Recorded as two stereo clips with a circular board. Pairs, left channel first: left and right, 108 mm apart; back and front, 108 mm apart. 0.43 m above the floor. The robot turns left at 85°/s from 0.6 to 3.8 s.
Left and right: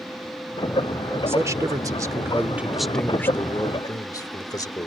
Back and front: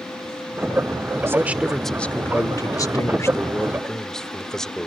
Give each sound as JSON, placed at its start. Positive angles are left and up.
{"t": 1.3, "sound": "a man speaking", "azimuth_deg": -45}